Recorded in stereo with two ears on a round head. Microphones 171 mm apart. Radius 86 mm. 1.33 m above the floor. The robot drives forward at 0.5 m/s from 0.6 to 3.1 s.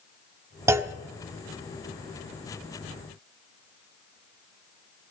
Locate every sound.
0.7 s a clunk: 15° right (ahead or behind), 0.9 m